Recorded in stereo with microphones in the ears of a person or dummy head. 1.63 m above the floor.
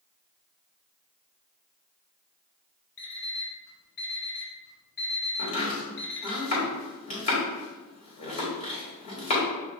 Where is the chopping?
40° left (ahead or behind), 1.4 m.